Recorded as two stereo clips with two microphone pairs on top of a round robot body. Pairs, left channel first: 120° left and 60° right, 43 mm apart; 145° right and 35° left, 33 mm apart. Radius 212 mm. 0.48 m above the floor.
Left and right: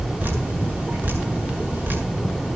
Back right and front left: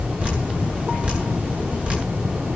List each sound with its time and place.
0.2 s dripping: 15° right, 7 m